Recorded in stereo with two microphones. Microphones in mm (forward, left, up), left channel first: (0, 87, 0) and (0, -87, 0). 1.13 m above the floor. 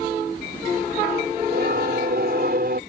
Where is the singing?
65° right (ahead or behind).